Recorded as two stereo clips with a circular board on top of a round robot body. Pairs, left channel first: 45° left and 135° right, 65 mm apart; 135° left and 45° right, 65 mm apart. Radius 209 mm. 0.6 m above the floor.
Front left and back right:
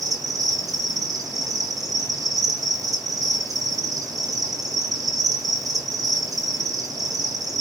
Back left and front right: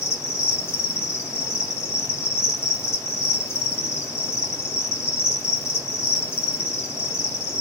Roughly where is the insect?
Behind.